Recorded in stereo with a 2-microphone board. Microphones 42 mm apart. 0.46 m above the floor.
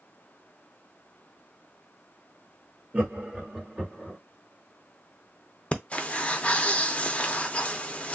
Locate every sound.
2.9 s laughter: 35° right (ahead or behind), 1.4 m; by 4.2 s centre (ahead or behind), 1.2 m
5.7 s breathing: 30° left (ahead or behind), 0.5 m